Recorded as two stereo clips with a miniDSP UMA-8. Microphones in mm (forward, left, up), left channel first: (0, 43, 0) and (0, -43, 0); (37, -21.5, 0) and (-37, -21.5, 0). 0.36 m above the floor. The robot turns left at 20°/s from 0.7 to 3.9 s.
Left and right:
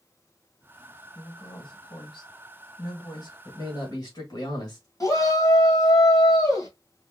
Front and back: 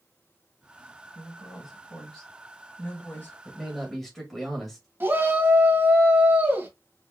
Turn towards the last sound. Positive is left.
turn(degrees=125)